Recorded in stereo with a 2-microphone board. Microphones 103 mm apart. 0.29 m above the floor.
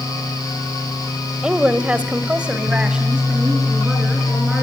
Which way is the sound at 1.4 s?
10° right (ahead or behind).